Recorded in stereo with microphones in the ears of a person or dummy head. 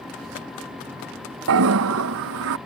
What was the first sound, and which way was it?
A toilet flushing, 70° right (ahead or behind).